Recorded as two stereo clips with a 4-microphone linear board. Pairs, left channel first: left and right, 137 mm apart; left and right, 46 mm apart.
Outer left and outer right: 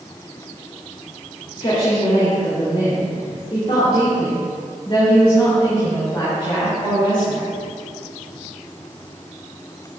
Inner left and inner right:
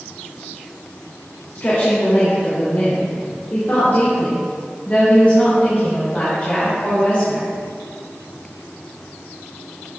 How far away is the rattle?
No rattle in this recording.